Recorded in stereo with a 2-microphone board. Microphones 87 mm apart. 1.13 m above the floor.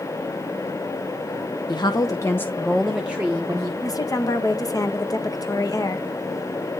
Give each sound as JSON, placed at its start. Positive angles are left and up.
{"t": 1.7, "sound": "a woman speaking", "side_deg": 55, "distance_m": 1.0}
{"t": 3.8, "sound": "a woman speaking", "side_deg": 40, "distance_m": 1.2}